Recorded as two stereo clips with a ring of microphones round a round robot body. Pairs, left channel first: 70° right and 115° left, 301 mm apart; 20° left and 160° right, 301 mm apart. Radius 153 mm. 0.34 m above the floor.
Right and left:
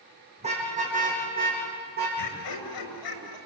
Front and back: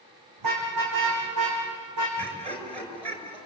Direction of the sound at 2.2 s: 85° right.